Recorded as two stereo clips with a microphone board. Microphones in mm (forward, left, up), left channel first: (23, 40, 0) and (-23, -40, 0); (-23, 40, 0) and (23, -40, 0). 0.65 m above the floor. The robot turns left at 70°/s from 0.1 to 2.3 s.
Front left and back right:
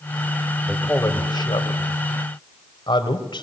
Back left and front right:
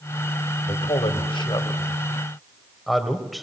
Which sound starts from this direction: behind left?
A man speaking, at 0.7 s.